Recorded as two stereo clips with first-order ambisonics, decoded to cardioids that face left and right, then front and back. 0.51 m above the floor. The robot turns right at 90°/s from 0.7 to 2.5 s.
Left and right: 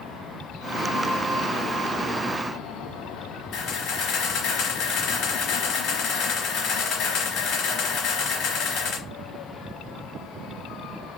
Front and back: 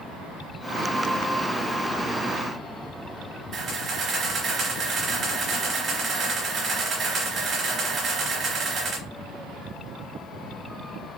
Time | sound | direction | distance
3.5 | a camera shutter | 125° left | 1.1 m